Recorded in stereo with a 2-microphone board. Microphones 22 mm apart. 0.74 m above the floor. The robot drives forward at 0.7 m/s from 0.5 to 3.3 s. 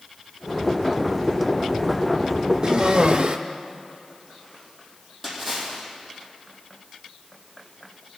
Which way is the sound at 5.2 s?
Centre (ahead or behind).